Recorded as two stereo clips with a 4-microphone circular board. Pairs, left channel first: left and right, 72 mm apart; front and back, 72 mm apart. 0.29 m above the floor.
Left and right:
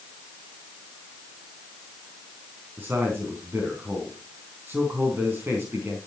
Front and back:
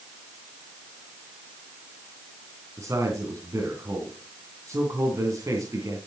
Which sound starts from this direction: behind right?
A man speaking, at 2.8 s.